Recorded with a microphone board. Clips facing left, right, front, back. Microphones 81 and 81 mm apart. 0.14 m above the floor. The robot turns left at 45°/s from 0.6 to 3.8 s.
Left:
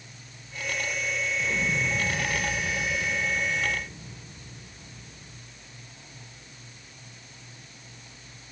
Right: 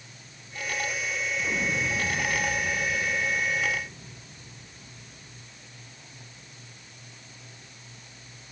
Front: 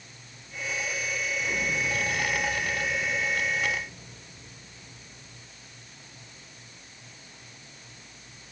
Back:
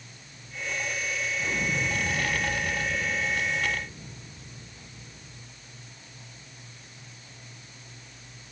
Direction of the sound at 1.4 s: 115° right.